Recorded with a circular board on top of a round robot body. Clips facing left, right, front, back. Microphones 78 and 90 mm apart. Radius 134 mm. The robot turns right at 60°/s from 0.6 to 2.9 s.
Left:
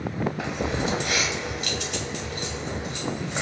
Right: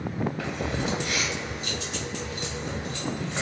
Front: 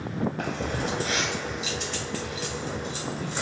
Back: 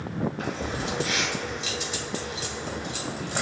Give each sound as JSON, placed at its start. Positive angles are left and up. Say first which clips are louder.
{"t": 0.4, "sound": "keys jangling", "louder": "left 2 dB, front 1 dB", "azimuth_deg": 20, "distance_m": 1.8}